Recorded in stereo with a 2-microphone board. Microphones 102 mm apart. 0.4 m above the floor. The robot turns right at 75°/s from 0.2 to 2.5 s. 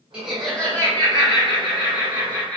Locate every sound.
0.1 s laughter: 15° right, 1.1 m; by 2.6 s 160° left, 1.1 m